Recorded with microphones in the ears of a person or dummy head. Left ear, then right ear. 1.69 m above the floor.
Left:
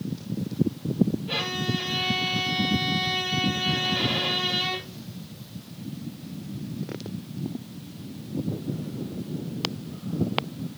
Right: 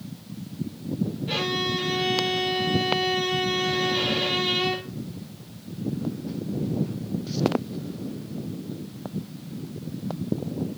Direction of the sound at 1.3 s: 25° right (ahead or behind).